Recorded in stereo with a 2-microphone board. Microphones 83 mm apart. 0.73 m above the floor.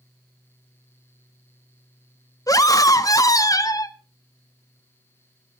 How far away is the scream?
About 1.2 m.